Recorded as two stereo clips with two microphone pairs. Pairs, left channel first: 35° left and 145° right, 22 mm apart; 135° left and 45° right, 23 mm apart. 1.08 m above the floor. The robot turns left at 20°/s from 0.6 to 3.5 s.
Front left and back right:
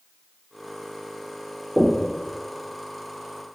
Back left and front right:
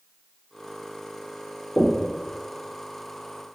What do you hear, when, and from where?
1.8 s knocking: 165° left, 0.6 m; by 2.1 s 160° left, 0.6 m